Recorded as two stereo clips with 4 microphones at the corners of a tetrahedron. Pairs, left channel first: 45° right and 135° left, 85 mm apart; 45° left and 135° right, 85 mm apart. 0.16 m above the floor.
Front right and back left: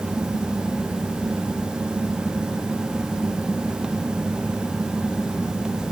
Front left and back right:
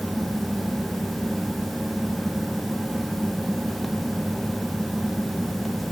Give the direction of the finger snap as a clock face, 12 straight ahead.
No finger snap in this recording.